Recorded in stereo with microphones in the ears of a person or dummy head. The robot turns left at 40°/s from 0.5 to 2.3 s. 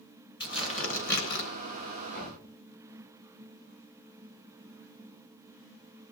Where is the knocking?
55° left (ahead or behind), 9.5 m; by 2.4 s 50° left (ahead or behind), 9.5 m.